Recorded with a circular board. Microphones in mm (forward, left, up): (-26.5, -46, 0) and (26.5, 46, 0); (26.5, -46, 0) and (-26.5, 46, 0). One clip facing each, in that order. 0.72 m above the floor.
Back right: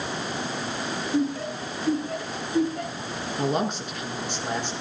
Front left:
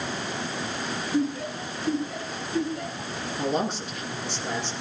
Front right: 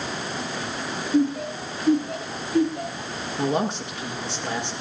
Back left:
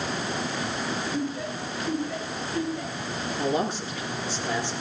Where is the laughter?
75° right, 6.5 m; by 3.3 s 70° right, 8 m.